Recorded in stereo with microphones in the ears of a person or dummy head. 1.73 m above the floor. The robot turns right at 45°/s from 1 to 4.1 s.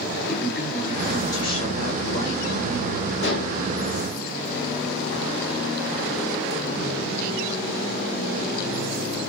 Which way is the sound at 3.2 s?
65° left (ahead or behind).